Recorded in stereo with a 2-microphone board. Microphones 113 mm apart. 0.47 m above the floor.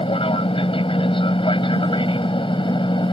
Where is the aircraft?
55° left (ahead or behind); by 3.1 s 45° left (ahead or behind).